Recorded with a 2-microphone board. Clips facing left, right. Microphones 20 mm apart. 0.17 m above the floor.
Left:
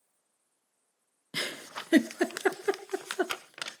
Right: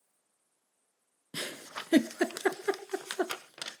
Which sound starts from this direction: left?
A giggle, at 1.3 s.